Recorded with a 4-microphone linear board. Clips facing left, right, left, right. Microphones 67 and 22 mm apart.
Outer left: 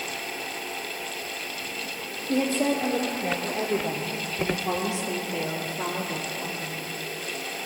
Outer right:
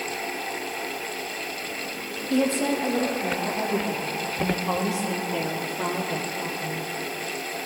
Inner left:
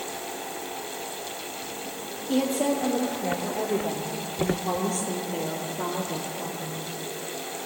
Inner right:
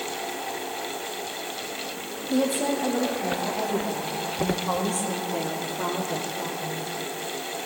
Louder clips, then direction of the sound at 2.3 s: Outer right 1 dB, even; 45° left (ahead or behind).